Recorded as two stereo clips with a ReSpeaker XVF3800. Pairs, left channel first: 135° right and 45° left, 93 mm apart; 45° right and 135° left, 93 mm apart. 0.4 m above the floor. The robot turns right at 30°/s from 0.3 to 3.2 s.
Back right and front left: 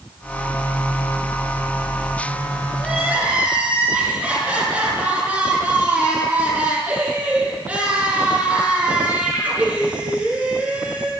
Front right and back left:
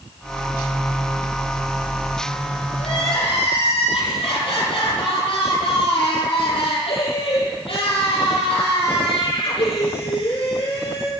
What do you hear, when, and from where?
2.8 s crying: 40° right, 8 m; by 11.1 s 25° right, 8 m